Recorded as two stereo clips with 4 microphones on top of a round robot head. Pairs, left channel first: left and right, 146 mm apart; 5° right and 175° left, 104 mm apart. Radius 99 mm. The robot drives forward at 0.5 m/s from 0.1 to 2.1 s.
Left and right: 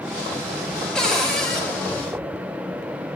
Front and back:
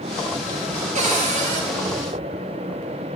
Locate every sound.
0.9 s a cupboard door: 175° left, 1.2 m